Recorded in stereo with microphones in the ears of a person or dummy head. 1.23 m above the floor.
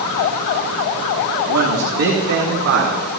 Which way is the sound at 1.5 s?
80° right.